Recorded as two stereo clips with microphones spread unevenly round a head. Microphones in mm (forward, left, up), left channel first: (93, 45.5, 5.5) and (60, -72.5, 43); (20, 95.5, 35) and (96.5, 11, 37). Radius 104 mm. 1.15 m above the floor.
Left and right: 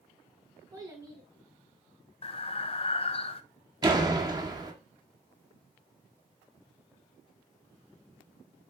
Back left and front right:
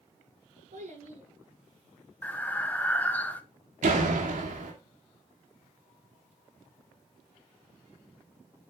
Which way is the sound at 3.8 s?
50° right.